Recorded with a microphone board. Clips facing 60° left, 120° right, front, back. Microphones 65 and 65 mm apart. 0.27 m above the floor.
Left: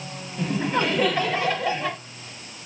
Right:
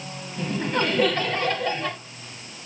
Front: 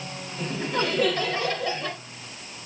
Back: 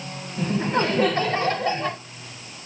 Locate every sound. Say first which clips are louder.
0.4 s laughter: left 1 dB, back 5 dB; 140° left, 1.4 m